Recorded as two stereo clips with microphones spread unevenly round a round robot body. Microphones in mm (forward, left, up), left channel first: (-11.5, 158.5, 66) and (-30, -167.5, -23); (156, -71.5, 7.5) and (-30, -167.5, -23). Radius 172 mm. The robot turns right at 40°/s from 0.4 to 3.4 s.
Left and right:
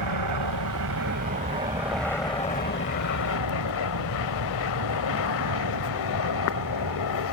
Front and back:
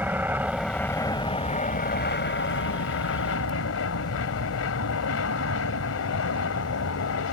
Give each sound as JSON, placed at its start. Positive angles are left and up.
{"t": 0.0, "sound": "an aircraft", "azimuth_deg": -70}